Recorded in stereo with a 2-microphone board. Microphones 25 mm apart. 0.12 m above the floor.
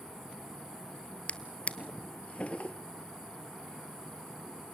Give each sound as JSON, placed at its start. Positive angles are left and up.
{"t": 1.3, "sound": "a drawer", "side_deg": 45, "distance_m": 1.0}